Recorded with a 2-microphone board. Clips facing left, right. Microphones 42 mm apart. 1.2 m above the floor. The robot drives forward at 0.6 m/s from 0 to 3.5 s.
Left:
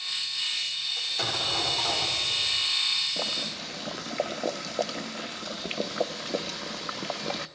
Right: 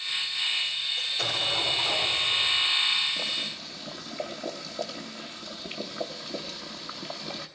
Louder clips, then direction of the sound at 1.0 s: Even; 75° left (ahead or behind).